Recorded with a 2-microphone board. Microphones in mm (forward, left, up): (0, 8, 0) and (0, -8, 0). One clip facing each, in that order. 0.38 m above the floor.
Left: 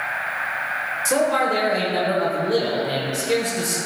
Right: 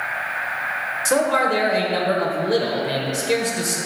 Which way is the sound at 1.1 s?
20° right (ahead or behind).